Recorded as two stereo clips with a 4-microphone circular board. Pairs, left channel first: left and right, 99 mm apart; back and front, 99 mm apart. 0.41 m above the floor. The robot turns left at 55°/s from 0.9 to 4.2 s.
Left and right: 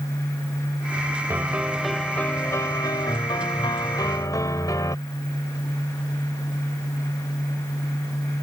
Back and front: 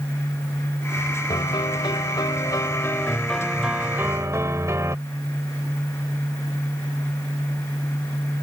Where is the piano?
150° right; by 5.0 s 50° left.